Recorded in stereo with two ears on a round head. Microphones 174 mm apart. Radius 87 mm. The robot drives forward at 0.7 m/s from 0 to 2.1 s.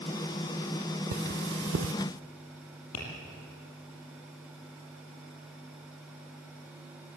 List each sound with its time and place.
1.1 s cutlery clinking: 45° right (ahead or behind), 0.9 m; by 1.9 s 75° right (ahead or behind), 0.7 m
2.9 s tapping: 85° left, 8 m